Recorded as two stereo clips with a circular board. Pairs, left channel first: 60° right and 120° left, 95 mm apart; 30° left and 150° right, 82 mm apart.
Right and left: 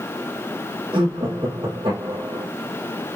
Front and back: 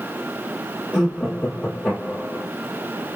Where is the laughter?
95° left, 4 m.